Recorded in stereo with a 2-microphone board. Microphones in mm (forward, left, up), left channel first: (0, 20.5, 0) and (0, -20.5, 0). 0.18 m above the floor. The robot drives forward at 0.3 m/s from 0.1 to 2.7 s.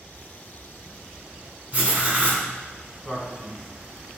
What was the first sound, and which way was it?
Writing, 30° right (ahead or behind).